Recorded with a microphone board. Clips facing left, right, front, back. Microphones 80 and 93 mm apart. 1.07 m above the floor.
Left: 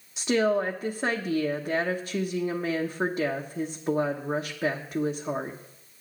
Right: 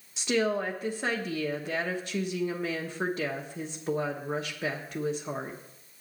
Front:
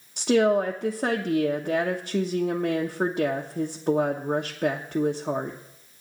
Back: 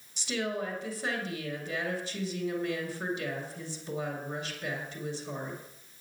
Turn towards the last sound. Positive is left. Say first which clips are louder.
# left 4 dB, front 13 dB
turn(degrees=15)